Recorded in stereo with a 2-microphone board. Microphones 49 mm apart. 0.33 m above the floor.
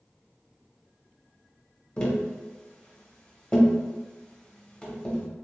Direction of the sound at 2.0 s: 20° left (ahead or behind).